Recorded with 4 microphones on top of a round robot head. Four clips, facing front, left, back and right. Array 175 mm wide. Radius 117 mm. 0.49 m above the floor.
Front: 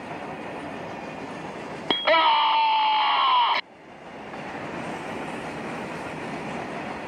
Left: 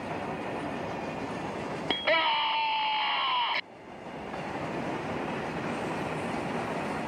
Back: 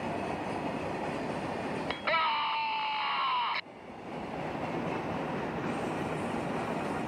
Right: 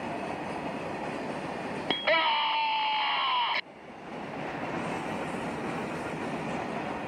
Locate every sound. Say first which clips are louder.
1.9 s a scream: right 1 dB, front 12 dB; straight ahead